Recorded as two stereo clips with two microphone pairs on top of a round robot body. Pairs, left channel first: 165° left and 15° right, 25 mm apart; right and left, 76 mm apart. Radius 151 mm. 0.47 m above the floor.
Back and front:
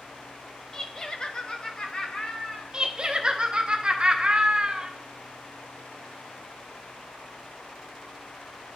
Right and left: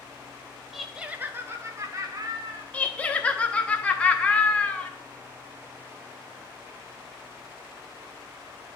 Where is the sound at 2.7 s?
55° right, 1.0 m.